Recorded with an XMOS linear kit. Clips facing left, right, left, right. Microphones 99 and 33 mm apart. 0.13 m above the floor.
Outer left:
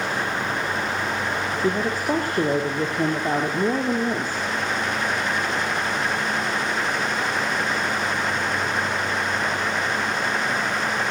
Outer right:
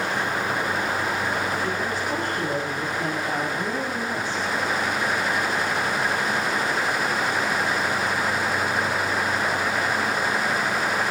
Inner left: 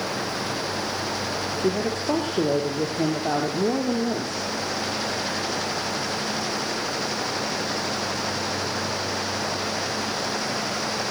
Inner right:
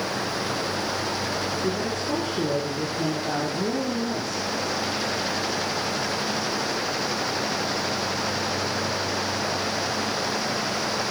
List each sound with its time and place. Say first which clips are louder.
1.6 s a woman speaking: outer left 3 dB, inner left 2 dB; 50° left (ahead or behind), 6 m